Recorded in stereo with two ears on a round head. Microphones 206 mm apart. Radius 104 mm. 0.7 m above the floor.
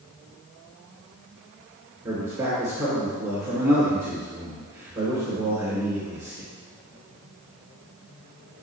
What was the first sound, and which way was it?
A man speaking, 15° right (ahead or behind).